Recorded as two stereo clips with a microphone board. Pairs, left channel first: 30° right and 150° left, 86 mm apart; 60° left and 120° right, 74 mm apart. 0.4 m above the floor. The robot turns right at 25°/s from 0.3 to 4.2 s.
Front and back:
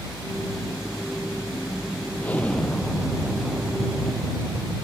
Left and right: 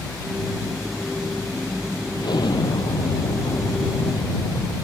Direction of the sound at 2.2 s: 40° left.